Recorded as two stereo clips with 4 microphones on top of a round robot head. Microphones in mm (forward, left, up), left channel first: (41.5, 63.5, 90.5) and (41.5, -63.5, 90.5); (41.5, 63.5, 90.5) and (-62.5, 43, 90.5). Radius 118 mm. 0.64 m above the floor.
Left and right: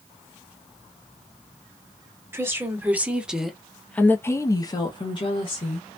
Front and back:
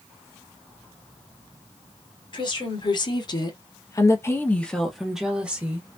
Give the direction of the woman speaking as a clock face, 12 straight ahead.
1 o'clock.